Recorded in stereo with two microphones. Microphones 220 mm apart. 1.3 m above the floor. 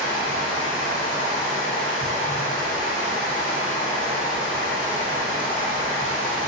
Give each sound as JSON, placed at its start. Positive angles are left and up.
{"t": 0.0, "sound": "running water", "side_deg": 55, "distance_m": 2.0}